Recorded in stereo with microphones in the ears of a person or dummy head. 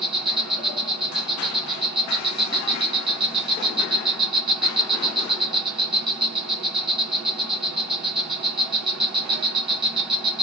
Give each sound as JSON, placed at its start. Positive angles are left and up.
{"t": 0.0, "sound": "an insect", "side_deg": 0, "distance_m": 1.9}